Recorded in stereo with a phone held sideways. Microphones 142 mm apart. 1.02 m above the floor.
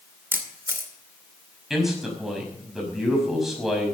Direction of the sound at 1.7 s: Centre (ahead or behind).